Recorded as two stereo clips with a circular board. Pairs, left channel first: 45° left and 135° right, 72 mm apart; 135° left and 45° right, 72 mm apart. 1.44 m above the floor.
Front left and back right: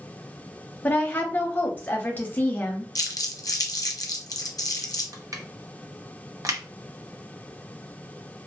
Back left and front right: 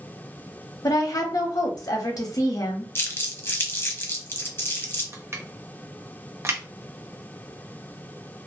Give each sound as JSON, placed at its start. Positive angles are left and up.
{"t": 0.8, "sound": "a woman speaking", "azimuth_deg": 110, "distance_m": 0.8}
{"t": 3.0, "sound": "crumpling", "azimuth_deg": 80, "distance_m": 0.6}
{"t": 5.1, "sound": "crushing", "azimuth_deg": -100, "distance_m": 0.6}